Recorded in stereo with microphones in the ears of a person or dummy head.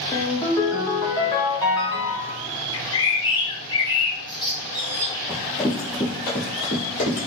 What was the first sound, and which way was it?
A ringtone, 15° left (ahead or behind).